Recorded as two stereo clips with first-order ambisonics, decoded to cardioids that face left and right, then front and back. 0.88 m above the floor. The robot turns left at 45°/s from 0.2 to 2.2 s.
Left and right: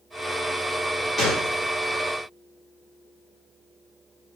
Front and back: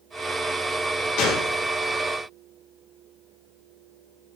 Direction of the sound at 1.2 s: 10° left.